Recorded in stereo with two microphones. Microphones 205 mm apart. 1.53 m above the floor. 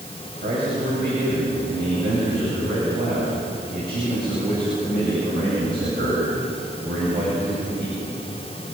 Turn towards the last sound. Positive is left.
turn(degrees=-50)  # may be behind; listen again after turning